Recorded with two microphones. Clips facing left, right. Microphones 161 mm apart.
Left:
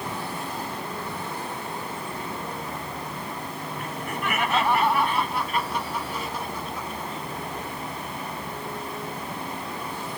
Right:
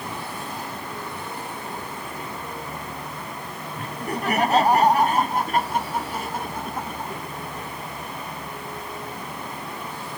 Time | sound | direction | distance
3.8 | laughter | 35° right (ahead or behind) | ?